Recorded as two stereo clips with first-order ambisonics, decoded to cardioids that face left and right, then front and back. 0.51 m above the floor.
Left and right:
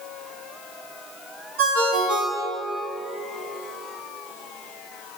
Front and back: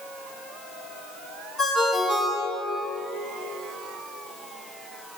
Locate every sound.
1.6 s a ringtone: 80° right, 3.5 m